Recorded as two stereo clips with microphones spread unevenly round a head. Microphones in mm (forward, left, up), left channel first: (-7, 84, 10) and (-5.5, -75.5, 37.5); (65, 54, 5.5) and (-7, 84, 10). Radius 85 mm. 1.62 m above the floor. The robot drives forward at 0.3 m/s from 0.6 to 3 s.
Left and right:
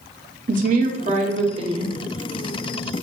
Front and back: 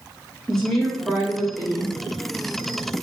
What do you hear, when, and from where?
0.5 s a woman speaking: 105° right, 0.5 m; by 2.0 s 140° right, 0.7 m